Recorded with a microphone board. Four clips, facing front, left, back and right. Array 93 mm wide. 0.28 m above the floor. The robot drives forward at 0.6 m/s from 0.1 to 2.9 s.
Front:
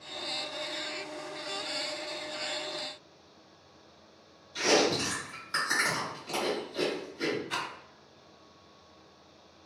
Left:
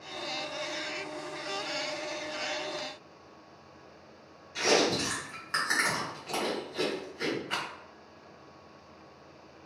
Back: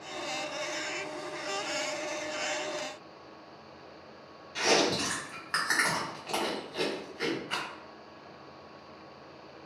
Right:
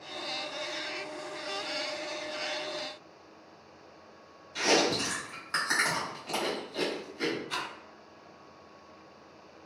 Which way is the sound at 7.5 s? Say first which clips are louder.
Left 1 dB, front 1 dB; 125° left.